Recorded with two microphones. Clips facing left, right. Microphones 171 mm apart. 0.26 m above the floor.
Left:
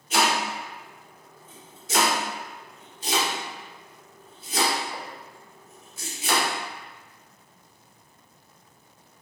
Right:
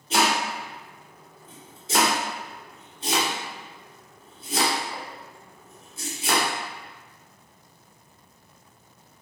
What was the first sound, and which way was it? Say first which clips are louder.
Chopping: right 1 dB; 30° right (ahead or behind).